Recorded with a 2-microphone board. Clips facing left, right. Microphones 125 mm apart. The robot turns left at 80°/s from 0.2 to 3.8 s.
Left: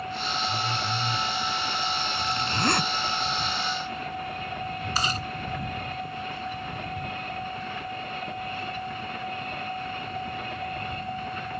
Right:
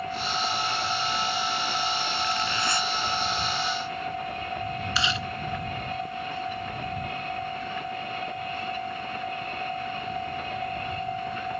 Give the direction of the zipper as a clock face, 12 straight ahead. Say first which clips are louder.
Even; 6 o'clock.